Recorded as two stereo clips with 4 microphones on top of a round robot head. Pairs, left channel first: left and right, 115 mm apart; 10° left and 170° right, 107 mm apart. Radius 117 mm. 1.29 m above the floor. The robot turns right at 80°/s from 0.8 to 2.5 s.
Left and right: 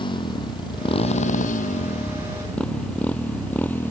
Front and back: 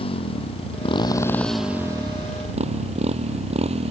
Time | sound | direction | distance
0.0 | a motorcycle | 45° left | ?